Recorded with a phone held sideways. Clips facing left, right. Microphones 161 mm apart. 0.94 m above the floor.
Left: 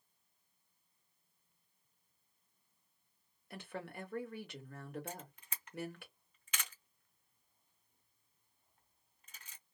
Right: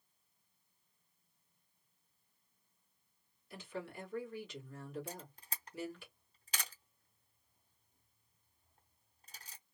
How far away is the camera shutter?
About 0.7 m.